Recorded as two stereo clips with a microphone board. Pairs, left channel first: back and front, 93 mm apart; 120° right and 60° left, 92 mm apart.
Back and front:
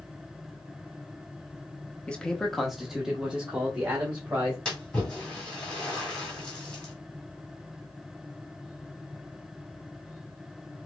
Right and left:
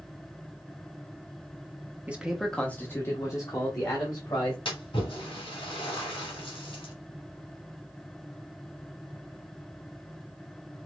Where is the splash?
100° right, 2 m.